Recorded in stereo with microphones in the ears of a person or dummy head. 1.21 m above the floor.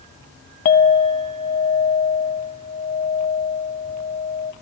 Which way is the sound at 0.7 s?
45° left (ahead or behind).